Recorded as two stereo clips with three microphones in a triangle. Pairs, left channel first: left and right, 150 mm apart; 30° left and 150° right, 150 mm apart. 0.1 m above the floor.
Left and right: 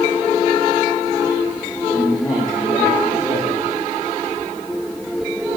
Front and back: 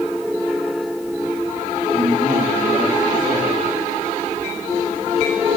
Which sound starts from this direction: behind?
A man speaking, at 1.9 s.